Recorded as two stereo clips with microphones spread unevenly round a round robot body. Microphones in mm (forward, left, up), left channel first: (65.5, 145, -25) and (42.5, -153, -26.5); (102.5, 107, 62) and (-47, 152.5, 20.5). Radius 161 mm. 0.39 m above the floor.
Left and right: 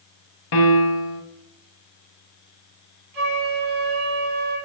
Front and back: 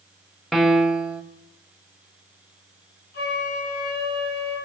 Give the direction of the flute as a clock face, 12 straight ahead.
1 o'clock.